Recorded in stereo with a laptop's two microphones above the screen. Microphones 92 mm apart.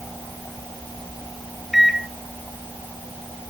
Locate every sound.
1.7 s a microwave: 5° right (ahead or behind), 0.8 m